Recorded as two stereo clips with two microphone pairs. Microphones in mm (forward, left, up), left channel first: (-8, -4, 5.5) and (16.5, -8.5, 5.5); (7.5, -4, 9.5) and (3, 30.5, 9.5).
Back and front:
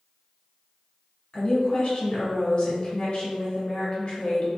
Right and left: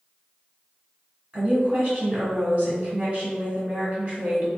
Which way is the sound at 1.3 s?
135° left.